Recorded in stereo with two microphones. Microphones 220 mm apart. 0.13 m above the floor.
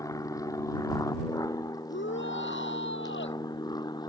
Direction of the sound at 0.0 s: 15° left (ahead or behind).